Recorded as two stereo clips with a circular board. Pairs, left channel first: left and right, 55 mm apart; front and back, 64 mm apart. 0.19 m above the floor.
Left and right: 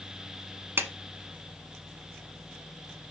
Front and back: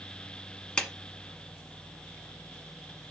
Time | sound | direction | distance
0.8 | a clap | 70° right | 1.1 m